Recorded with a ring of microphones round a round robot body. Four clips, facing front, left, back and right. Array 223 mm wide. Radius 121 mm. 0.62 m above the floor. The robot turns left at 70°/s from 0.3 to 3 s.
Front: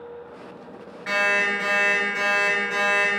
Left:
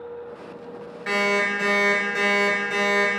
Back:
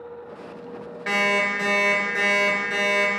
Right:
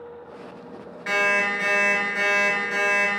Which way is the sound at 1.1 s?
175° right.